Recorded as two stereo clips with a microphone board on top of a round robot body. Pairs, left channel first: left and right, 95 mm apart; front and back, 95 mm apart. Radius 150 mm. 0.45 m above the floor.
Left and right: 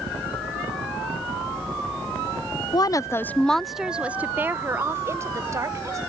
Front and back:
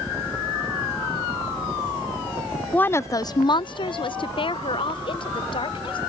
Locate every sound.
2.7 s a woman speaking: 70° left; by 6.0 s 35° right